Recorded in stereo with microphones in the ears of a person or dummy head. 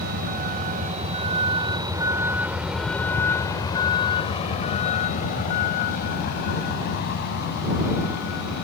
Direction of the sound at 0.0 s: 55° right (ahead or behind).